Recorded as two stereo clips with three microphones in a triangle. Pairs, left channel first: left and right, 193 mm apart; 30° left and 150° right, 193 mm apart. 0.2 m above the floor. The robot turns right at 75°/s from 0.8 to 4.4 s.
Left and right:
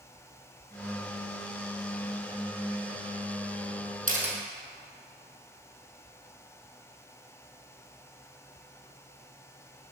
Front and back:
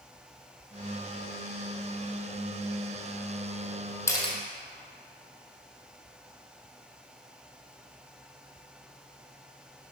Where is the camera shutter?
45° right, 1.3 m; by 4.3 s 25° right, 1.3 m.